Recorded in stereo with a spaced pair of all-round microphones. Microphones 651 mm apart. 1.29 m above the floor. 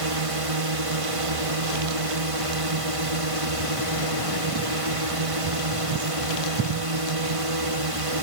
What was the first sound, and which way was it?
A drone, 55° right (ahead or behind).